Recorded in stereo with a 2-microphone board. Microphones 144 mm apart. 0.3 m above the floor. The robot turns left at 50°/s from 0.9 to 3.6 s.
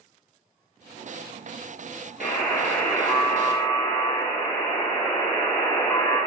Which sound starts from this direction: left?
A buzzer, at 2.2 s.